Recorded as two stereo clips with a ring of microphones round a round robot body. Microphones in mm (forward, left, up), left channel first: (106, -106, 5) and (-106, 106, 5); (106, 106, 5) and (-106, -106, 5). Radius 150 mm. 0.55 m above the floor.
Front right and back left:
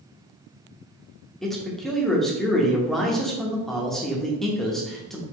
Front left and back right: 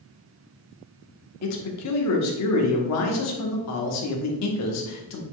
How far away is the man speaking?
About 0.9 m.